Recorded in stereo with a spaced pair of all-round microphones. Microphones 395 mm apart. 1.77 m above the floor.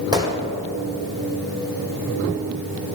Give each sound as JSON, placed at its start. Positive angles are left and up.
{"t": 0.1, "sound": "a gunshot", "side_deg": -10, "distance_m": 2.5}